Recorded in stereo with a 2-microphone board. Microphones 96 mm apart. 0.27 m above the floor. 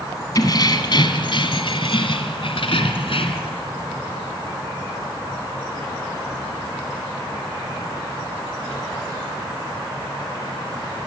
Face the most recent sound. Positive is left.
turn(degrees=70)  # may be behind; listen again after turning